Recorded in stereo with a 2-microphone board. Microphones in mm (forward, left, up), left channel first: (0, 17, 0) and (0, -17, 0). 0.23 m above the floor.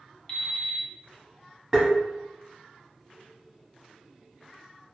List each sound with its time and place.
0.3 s an alarm clock: 30° left (ahead or behind), 0.7 m
1.7 s tapping: 20° right (ahead or behind), 0.9 m